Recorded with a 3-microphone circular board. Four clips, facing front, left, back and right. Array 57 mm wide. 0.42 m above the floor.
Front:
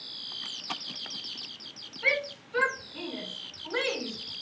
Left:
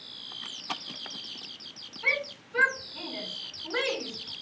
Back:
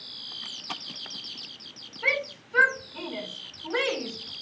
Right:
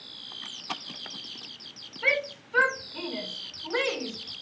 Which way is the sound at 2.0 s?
110° right.